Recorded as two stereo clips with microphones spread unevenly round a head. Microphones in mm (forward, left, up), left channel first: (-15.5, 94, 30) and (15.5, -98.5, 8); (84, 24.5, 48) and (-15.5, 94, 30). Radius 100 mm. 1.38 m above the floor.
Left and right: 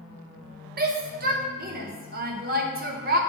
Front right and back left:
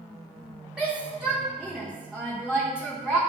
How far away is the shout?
About 0.9 m.